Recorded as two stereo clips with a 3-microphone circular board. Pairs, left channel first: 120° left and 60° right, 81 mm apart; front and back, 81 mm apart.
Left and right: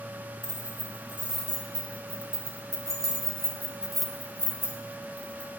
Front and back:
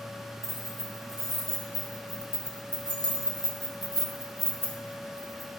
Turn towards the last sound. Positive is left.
turn(degrees=90)